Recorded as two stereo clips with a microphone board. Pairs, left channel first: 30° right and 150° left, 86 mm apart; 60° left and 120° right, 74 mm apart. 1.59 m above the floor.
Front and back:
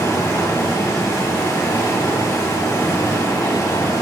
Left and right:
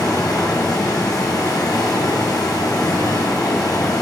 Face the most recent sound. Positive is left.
turn(degrees=20)